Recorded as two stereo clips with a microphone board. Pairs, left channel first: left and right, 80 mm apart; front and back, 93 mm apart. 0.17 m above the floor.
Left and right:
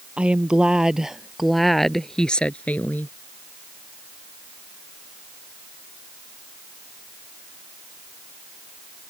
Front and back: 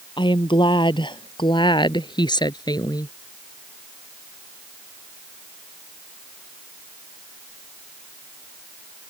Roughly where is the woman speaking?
Ahead.